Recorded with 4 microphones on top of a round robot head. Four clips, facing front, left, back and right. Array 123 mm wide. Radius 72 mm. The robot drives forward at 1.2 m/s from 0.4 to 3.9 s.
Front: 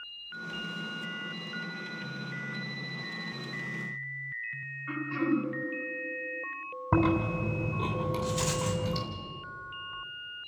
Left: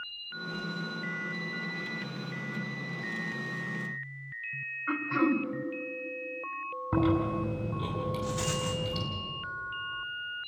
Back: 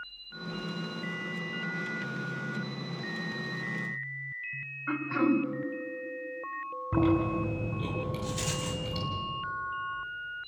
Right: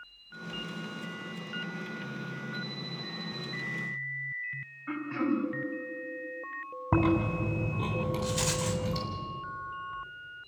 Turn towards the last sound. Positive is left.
turn(degrees=-90)